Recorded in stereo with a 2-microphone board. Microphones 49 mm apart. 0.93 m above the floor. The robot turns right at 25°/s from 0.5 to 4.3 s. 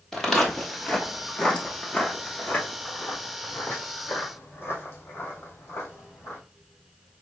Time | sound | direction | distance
0.1 | footsteps | 10° left (ahead or behind) | 1.1 m